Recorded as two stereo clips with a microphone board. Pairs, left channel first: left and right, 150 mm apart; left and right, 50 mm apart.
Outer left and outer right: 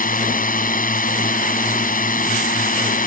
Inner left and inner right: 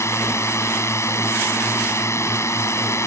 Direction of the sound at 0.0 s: 75° left (ahead or behind).